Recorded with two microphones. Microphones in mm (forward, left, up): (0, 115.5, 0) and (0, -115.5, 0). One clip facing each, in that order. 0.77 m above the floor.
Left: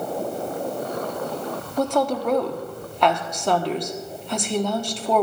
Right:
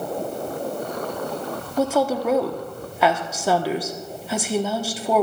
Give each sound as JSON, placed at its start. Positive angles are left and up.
{"t": 1.8, "sound": "a woman speaking", "side_deg": -5, "distance_m": 1.3}